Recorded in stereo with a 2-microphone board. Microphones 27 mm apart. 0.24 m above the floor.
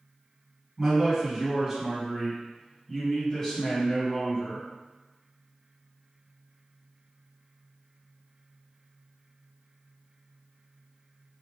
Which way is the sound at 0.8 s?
15° right (ahead or behind).